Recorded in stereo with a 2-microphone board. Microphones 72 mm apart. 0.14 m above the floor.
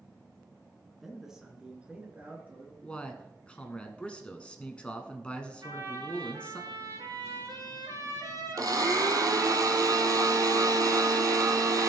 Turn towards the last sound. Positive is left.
turn(degrees=-60)  # may be behind; listen again after turning